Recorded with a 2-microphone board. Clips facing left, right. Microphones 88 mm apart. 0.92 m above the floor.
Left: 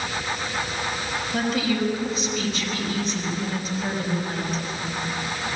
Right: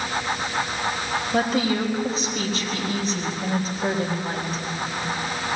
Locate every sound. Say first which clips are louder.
1.3 s a woman speaking: right 2 dB; 40° right (ahead or behind), 4.5 m